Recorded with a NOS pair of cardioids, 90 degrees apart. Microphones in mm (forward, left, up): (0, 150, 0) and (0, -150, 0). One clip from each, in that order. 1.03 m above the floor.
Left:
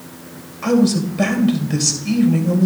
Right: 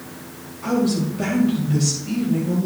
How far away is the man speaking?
About 2.5 m.